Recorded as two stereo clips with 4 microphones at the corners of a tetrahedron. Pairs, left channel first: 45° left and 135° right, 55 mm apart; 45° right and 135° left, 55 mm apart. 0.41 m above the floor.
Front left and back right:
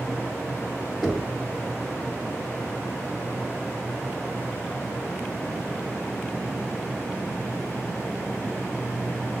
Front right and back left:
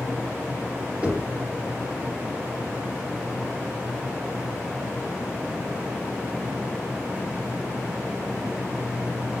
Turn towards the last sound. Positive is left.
turn(degrees=125)